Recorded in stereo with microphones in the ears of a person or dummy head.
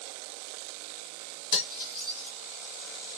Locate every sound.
1.5 s cutlery clinking: 55° left (ahead or behind), 1.5 m